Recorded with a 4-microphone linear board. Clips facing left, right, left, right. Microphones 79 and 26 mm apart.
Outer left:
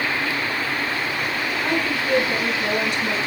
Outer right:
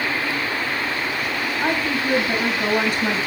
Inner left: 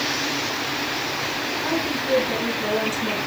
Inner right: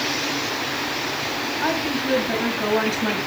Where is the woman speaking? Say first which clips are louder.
Outer right 2 dB, inner right 3 dB; 30° right (ahead or behind), 2.5 m.